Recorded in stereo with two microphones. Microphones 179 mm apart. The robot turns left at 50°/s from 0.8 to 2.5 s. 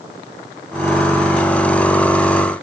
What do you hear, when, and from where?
Only background noise.